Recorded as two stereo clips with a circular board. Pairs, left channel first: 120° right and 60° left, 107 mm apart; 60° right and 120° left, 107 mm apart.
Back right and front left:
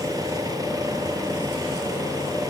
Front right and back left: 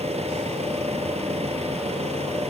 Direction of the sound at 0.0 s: 115° left.